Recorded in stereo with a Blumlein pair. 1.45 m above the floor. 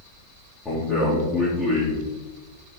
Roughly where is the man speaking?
Ahead.